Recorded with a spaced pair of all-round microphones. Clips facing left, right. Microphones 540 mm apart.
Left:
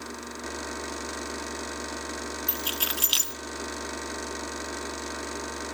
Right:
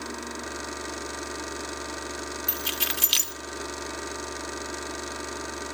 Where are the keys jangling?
45° right (ahead or behind), 0.9 m.